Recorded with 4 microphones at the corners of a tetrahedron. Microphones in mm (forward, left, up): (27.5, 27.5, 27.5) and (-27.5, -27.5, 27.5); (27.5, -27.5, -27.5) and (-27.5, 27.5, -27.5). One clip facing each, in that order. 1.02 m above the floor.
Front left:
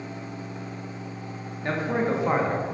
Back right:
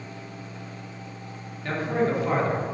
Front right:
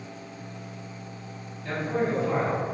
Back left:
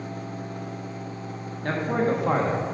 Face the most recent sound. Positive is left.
turn(degrees=115)